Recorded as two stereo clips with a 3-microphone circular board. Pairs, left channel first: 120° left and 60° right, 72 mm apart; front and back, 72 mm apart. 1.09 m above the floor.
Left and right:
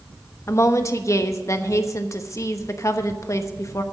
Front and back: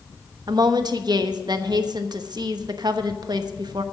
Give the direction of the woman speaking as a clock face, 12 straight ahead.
7 o'clock.